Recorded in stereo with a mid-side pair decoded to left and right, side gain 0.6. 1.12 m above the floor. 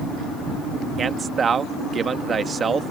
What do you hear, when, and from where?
1.0 s a man speaking: 35° right